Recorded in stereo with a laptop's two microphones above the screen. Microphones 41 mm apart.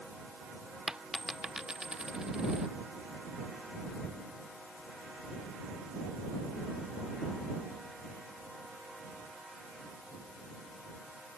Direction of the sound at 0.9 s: 15° right (ahead or behind).